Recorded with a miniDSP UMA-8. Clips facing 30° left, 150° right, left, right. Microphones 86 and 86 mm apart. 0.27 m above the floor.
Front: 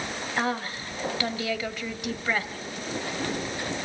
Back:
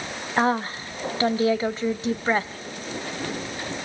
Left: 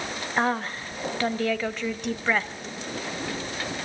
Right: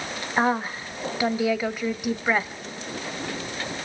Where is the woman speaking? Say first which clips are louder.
Back 7 dB, right 2 dB; 160° right, 1.0 m.